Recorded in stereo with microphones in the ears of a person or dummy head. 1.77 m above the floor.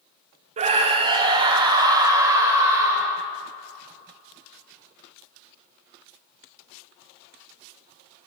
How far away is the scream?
About 0.7 m.